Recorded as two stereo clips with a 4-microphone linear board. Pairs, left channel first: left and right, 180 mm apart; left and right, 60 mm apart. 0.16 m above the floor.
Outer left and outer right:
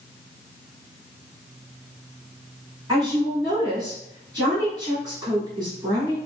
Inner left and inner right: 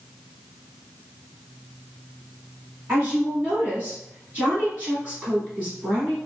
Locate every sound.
2.9 s a woman speaking: 25° right (ahead or behind), 1.6 m